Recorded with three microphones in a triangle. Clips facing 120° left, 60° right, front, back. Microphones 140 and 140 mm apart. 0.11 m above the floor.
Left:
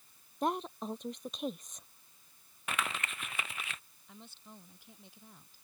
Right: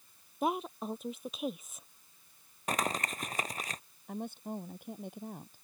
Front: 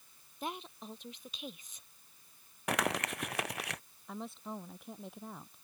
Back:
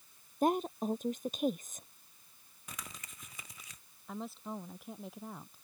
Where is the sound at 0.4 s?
145° right.